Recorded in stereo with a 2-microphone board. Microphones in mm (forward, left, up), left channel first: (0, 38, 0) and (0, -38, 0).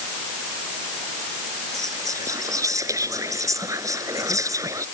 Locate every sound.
1.7 s whispering: 45° right (ahead or behind)